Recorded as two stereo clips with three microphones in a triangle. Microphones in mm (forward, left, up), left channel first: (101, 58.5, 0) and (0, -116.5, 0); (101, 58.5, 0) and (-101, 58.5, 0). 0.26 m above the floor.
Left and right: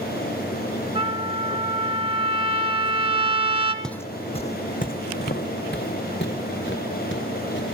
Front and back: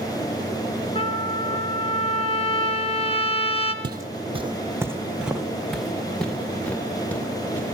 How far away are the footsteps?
About 0.5 m.